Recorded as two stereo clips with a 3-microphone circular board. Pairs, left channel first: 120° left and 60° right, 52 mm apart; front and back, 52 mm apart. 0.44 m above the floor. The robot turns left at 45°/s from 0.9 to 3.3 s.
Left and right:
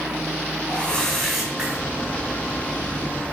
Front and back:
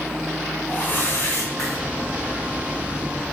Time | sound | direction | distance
0.7 | a whoosh | 45° left | 3.5 m